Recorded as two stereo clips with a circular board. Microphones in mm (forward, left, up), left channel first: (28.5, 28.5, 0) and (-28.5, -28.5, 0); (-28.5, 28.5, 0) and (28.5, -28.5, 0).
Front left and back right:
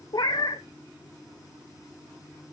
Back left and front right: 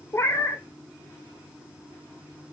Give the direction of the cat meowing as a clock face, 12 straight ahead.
9 o'clock.